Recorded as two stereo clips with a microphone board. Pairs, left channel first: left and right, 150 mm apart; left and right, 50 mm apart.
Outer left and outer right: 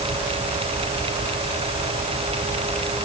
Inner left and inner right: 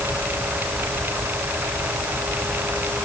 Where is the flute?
No flute in this recording.